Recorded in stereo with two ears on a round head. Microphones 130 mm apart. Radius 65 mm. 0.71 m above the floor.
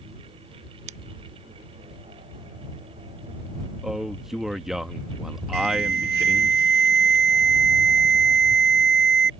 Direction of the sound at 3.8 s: 5° right (ahead or behind).